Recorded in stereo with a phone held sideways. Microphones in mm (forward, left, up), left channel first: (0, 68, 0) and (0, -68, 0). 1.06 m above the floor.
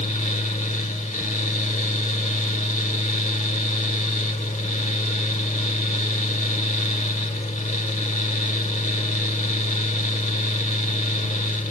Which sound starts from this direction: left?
A fan, at 0.0 s.